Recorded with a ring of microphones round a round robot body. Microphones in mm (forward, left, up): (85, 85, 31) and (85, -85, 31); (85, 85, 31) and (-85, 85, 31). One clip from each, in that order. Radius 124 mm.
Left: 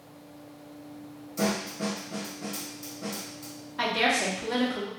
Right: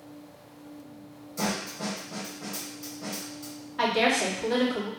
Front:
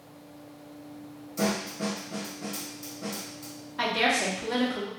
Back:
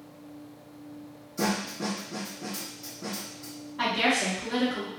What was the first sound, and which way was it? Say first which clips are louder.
A snare drum: left 2 dB, even; 10° left.